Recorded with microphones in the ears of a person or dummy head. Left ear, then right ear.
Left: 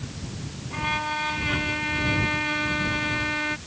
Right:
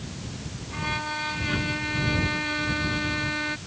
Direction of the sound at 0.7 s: 10° left (ahead or behind).